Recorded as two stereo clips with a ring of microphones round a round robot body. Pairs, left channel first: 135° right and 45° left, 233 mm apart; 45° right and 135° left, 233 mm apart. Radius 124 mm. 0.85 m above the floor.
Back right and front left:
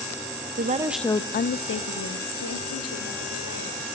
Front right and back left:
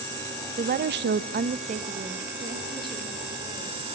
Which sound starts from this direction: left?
A woman speaking, at 0.6 s.